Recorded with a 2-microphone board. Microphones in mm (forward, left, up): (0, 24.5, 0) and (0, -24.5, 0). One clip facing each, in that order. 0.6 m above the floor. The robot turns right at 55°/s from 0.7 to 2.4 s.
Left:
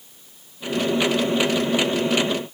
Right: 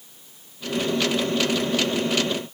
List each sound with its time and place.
Only background noise.